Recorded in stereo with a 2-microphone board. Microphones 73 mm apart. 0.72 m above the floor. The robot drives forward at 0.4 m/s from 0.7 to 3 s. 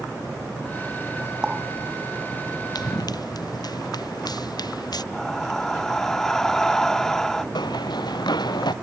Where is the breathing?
10° left (ahead or behind).